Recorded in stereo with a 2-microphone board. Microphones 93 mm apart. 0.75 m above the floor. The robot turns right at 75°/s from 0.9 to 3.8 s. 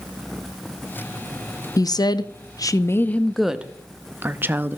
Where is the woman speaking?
55° left, 0.5 m; by 4.8 s 150° right, 0.5 m.